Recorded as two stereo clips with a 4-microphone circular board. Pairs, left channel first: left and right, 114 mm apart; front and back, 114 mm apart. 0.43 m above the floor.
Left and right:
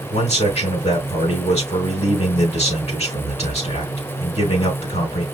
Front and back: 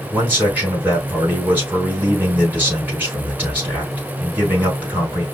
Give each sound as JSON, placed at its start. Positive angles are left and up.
{"t": 0.1, "sound": "a man speaking", "azimuth_deg": 105, "distance_m": 4.0}